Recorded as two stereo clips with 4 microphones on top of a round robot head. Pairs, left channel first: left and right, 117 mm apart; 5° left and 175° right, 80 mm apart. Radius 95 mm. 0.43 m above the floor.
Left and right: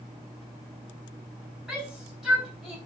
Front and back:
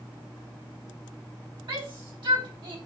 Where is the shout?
175° right, 4 m.